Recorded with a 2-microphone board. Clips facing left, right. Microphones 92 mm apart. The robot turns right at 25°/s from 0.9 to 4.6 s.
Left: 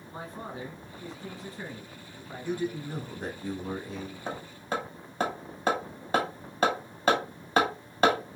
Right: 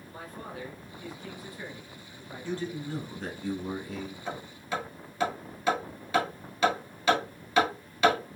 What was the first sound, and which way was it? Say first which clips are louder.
A man speaking: left 3 dB; 30° left (ahead or behind).